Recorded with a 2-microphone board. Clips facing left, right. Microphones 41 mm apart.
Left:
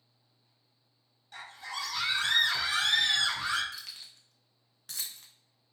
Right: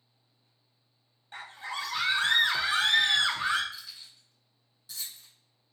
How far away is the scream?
About 0.6 m.